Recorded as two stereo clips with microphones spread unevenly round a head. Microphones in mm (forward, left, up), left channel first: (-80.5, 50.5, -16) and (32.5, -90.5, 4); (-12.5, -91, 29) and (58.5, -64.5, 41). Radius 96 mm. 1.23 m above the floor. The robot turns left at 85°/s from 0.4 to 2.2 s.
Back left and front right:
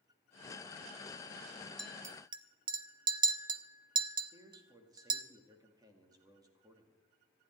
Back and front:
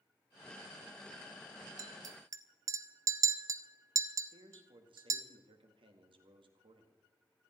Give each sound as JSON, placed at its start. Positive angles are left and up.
{"t": 1.8, "sound": "a clink", "azimuth_deg": 35, "distance_m": 0.8}
{"t": 4.3, "sound": "a man speaking", "azimuth_deg": 20, "distance_m": 2.0}